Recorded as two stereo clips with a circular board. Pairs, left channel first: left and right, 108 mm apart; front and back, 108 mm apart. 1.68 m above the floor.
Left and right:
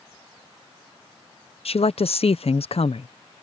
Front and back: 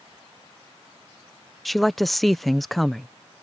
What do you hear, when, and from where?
1.6 s a woman speaking: 90° left